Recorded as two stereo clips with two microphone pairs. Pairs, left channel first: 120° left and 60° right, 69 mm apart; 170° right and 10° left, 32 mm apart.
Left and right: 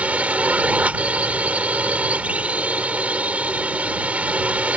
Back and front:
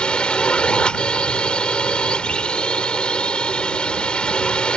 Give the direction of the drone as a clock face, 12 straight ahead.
4 o'clock.